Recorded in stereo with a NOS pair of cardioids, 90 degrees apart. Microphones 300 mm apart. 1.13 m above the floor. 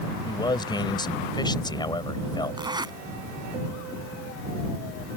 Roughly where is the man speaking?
Ahead.